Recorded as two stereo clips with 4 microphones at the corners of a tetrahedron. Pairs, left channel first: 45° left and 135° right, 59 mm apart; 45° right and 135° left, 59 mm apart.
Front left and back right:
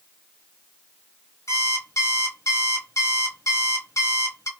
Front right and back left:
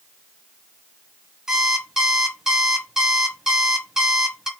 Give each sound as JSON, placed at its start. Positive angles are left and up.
{"t": 1.5, "sound": "an alarm clock", "azimuth_deg": 55, "distance_m": 1.1}